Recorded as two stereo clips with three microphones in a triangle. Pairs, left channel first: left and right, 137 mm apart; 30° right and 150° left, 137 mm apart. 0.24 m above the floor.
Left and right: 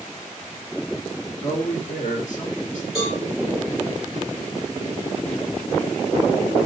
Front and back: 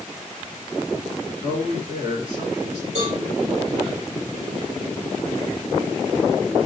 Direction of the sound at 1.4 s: 100° left.